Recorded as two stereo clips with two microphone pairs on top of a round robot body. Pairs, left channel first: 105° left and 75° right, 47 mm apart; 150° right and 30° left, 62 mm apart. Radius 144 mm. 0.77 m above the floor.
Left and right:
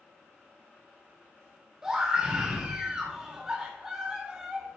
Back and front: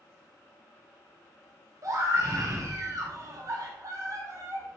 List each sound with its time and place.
1.8 s a scream: 5° right, 1.4 m